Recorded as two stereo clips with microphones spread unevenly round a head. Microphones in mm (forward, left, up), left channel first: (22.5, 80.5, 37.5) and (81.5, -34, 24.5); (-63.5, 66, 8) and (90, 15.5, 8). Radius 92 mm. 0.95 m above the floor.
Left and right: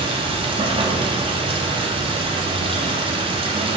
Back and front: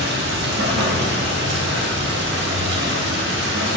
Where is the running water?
20° right, 1.7 m.